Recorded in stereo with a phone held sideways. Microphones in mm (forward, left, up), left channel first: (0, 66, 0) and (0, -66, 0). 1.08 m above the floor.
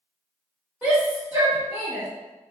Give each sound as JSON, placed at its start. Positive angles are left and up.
{"t": 0.8, "sound": "a shout", "side_deg": -15, "distance_m": 1.4}